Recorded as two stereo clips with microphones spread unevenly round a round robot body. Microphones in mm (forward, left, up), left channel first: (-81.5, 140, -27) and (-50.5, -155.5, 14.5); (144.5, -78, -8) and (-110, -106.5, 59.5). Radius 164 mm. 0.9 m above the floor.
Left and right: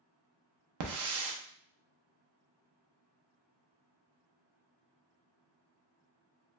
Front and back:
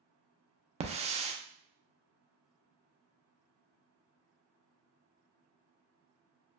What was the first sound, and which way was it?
A hiss, 95° right.